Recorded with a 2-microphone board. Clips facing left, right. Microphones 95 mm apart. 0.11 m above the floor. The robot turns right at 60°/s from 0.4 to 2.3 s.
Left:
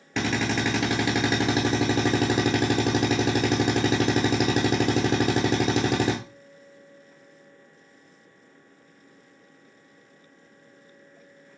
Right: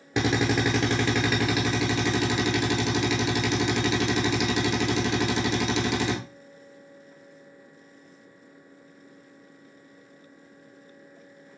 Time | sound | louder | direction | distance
0.2 | a drill | right 2 dB | 25° right | 0.8 m